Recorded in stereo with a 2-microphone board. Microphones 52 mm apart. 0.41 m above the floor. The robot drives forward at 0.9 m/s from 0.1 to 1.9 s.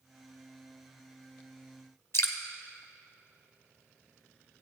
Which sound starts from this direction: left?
Dripping, at 2.1 s.